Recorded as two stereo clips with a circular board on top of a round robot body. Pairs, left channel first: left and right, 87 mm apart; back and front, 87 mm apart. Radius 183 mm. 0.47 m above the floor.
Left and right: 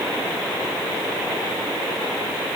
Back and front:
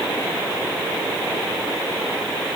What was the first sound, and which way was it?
Only background noise.